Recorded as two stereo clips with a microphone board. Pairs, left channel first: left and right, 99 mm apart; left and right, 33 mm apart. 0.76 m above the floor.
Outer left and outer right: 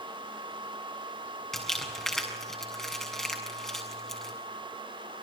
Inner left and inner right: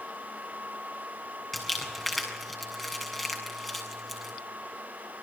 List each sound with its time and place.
1.5 s crumpling: 5° left (ahead or behind), 7 m